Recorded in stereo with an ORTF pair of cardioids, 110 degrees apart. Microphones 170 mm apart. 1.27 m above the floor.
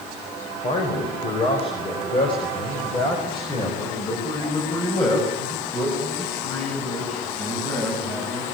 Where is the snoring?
I don't hear snoring.